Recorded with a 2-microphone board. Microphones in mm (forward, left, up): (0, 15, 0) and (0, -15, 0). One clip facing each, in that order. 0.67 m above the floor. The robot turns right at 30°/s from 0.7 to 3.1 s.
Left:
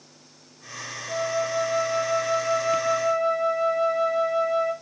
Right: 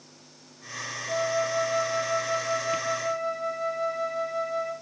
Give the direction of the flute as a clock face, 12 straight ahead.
12 o'clock.